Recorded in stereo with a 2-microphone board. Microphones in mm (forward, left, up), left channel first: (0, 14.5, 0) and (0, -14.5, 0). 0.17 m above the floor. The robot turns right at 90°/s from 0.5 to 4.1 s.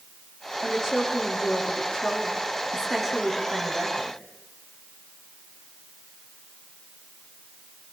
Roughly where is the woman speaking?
Ahead right.